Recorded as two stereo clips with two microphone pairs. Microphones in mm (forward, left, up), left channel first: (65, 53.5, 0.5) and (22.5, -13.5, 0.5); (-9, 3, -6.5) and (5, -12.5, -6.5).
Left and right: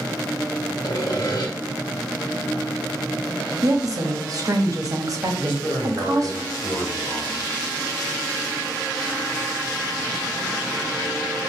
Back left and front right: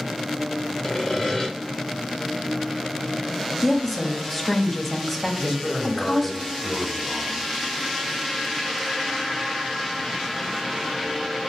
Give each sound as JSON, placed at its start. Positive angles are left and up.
{"t": 0.8, "sound": "sawing", "azimuth_deg": 70, "distance_m": 1.2}
{"t": 3.6, "sound": "a woman speaking", "azimuth_deg": -155, "distance_m": 0.8}
{"t": 5.4, "sound": "a man speaking", "azimuth_deg": 85, "distance_m": 1.5}